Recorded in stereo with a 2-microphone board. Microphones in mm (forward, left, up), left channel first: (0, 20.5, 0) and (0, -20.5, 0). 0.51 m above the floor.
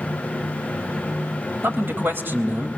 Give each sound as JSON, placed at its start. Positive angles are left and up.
{"t": 1.6, "sound": "a man speaking", "side_deg": -70, "distance_m": 2.5}